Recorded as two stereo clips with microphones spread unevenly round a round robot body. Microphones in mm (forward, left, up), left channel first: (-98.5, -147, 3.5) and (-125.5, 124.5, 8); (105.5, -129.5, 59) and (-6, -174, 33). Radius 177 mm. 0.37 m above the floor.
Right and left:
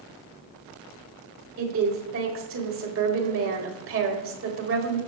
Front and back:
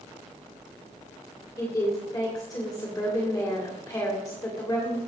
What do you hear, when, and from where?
1.6 s a woman speaking: 90° left, 1.9 m